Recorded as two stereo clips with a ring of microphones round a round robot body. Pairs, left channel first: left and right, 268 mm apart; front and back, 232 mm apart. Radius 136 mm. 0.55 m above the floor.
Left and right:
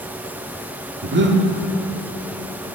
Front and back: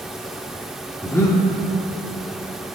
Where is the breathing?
75° right, 1.5 m.